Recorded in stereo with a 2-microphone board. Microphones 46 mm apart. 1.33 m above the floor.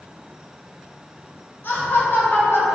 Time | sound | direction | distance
1.6 | laughter | 45° left (ahead or behind) | 1.3 m